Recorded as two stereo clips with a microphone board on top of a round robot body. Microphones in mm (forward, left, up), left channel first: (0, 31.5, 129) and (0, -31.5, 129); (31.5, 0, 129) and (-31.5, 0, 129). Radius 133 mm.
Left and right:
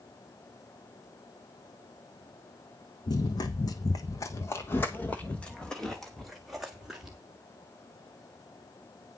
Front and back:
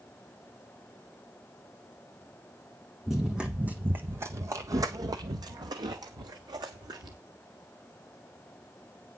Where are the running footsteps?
95° left, 1.1 m; by 7.2 s 170° right, 1.8 m.